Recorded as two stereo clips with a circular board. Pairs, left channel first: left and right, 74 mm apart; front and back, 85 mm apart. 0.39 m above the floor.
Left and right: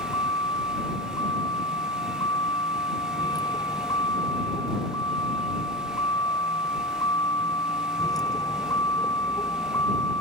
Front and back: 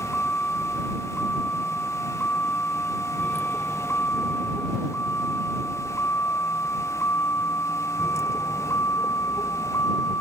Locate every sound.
0.0 s a vehicle: 70° left; by 10.2 s 50° left